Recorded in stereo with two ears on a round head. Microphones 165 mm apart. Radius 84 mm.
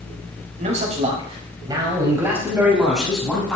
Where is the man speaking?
45° right (ahead or behind), 3.5 m; by 3.6 s 5° left (ahead or behind), 5 m.